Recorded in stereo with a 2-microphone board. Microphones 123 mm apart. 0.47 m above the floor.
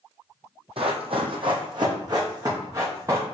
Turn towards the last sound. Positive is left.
turn(degrees=-25)  # may be behind; listen again after turning